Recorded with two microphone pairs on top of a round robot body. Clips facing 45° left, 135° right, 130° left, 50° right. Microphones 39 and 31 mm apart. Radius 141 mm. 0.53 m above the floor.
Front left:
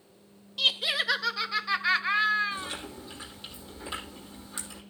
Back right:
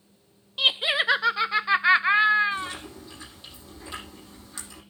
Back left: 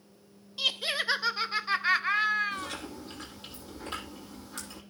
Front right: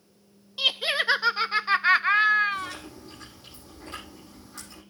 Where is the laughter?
95° right, 0.7 m.